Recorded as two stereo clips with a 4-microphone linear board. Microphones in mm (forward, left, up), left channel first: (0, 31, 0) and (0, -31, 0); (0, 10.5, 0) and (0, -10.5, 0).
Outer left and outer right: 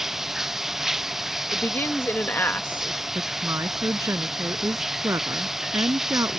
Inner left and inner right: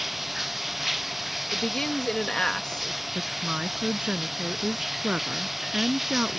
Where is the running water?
5° right (ahead or behind).